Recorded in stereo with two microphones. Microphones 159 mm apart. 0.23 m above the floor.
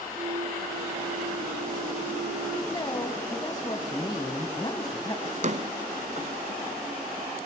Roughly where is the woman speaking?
Left.